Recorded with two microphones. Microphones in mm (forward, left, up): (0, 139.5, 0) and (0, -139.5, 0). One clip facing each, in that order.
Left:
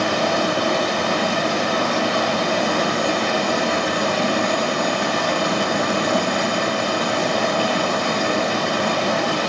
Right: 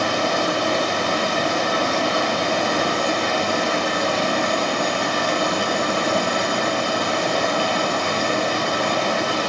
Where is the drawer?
No drawer in this recording.